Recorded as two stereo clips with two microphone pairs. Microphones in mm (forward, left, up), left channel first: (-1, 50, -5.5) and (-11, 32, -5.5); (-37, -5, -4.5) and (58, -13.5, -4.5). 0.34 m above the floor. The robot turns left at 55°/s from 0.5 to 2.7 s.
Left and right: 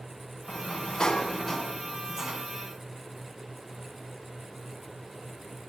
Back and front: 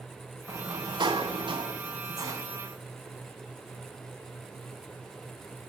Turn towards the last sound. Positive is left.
turn(degrees=-80)